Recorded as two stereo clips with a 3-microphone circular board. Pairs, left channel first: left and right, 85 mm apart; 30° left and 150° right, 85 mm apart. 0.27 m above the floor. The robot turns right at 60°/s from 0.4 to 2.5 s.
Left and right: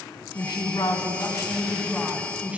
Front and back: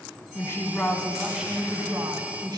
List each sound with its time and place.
0.3 s a woman speaking: 75° left, 1.8 m; by 2.6 s 160° right, 1.8 m